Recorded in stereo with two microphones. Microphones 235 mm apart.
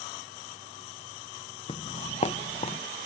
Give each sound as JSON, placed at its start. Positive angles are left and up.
{"t": 1.7, "sound": "footsteps", "side_deg": 25}